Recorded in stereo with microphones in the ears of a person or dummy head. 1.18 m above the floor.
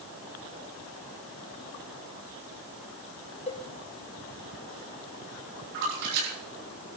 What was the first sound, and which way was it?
A cowbell, 30° left (ahead or behind).